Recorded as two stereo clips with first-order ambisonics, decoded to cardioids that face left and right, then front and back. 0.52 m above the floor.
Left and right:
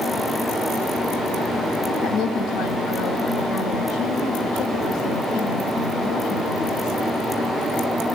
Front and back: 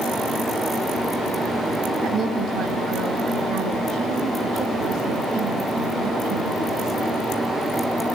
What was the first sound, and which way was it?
A woman speaking, 80° left.